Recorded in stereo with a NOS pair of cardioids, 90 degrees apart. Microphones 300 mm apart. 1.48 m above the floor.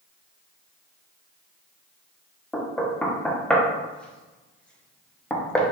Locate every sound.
2.5 s knocking: 5° left, 0.7 m